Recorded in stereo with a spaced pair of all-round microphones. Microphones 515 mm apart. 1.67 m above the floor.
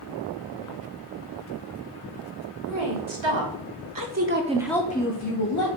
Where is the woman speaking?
65° right (ahead or behind), 1.3 m; by 5.7 s 50° left (ahead or behind), 0.8 m.